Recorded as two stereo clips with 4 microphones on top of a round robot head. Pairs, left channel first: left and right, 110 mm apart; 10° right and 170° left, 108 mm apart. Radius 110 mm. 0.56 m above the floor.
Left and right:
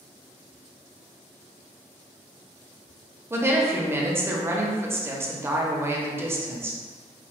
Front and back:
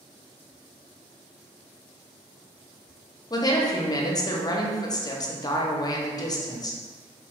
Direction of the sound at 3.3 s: 35° right.